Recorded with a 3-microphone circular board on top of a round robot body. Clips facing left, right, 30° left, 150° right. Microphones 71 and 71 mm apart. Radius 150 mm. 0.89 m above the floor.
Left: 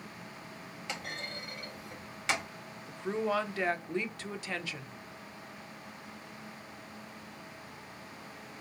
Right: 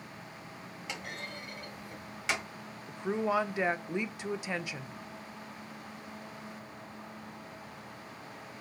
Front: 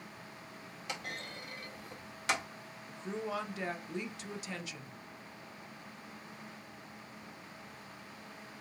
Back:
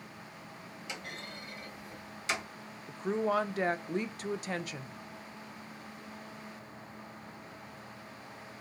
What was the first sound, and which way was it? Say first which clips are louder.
A clunk: left 1 dB, front 2 dB; straight ahead.